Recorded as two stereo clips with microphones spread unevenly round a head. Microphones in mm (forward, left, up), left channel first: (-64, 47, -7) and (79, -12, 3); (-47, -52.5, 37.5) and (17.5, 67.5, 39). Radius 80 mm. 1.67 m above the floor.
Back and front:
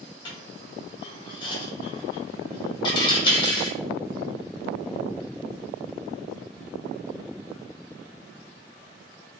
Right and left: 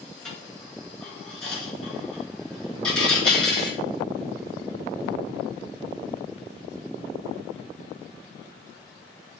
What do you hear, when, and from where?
0.2 s a dropped coin: 165° left, 1.0 m